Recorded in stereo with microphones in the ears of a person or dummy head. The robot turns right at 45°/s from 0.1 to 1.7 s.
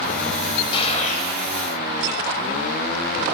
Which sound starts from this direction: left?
A gunshot, at 0.7 s.